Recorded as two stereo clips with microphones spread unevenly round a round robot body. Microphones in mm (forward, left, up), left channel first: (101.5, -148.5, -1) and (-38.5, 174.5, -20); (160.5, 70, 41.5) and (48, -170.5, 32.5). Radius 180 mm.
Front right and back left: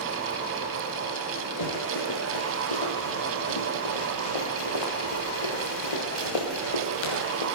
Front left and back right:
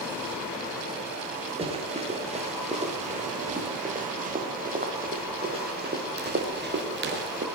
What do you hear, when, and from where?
1.6 s running footsteps: 45° right, 7.5 m; by 7.5 s 70° right, 6 m